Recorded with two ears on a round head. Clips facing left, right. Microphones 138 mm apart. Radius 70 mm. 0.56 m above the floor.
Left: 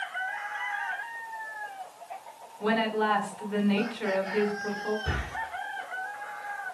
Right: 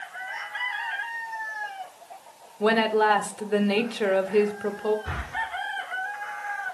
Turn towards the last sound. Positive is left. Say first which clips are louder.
# left 1 dB
turn(degrees=30)  # may be behind; listen again after turning